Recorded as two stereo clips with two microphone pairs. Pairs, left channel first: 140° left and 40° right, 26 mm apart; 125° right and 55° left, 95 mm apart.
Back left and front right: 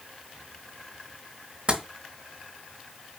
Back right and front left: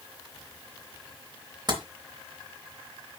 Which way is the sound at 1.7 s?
10° left.